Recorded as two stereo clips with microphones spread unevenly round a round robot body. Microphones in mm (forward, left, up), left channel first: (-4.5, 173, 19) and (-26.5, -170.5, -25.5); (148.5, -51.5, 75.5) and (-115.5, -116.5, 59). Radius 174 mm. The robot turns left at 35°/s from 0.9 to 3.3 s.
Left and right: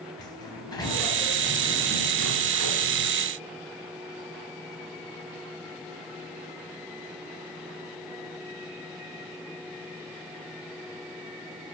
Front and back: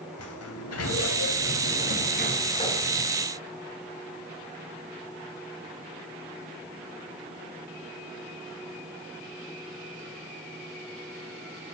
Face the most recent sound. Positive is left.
turn(degrees=-80)